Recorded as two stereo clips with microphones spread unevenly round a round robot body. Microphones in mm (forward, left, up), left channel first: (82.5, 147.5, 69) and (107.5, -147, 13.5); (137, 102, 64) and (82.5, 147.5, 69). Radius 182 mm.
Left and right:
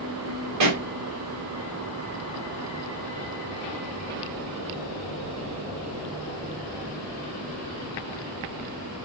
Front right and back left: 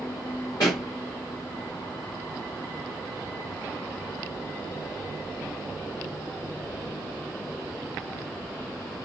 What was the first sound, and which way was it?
A pop, 95° right.